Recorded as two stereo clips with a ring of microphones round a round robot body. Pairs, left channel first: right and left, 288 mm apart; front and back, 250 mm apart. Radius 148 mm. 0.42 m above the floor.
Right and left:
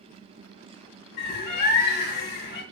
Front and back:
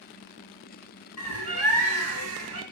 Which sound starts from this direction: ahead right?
A bird, at 1.2 s.